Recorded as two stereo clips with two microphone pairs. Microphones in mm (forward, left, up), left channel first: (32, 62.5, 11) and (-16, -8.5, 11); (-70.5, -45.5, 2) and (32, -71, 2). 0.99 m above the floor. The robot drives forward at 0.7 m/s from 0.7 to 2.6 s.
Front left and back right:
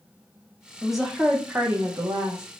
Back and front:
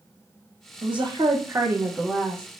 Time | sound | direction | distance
0.8 | a woman speaking | 30° right | 1.1 m